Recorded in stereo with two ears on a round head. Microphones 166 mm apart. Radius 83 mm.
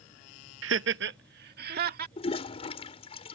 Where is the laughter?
75° right (ahead or behind); by 2.1 s 55° right (ahead or behind).